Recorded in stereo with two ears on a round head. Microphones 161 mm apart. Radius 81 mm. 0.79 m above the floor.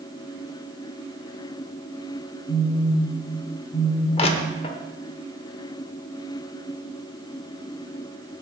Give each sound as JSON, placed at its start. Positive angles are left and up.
{"t": 2.5, "sound": "a phone buzzing", "side_deg": 40, "distance_m": 2.0}
{"t": 4.2, "sound": "crushing", "side_deg": 35, "distance_m": 0.8}